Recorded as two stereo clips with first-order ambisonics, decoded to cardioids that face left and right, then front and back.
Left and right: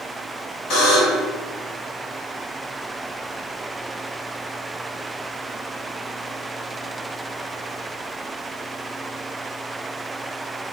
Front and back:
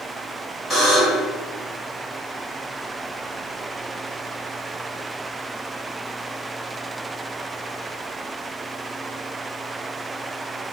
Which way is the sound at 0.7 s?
75° left.